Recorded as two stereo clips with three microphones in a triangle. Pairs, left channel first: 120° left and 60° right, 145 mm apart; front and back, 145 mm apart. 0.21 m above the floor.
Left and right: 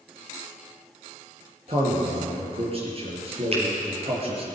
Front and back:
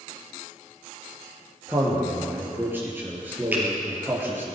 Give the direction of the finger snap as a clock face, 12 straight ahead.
3 o'clock.